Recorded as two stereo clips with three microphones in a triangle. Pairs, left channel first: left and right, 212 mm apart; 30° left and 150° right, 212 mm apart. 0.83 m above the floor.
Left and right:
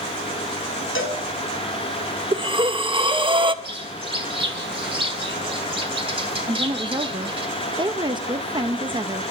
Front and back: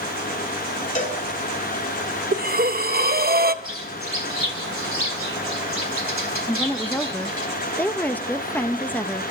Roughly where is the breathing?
Behind right.